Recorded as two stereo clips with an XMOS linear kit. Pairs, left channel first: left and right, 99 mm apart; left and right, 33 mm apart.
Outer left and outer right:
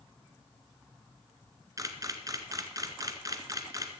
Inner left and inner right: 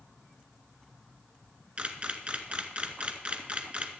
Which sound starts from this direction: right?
A camera shutter, at 1.8 s.